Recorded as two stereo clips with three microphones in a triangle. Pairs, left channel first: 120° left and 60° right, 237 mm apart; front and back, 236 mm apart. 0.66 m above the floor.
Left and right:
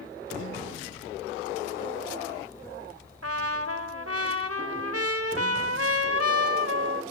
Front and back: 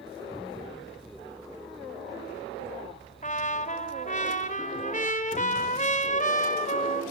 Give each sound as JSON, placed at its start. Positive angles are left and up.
{"t": 3.2, "sound": "a trumpet", "azimuth_deg": -60, "distance_m": 2.0}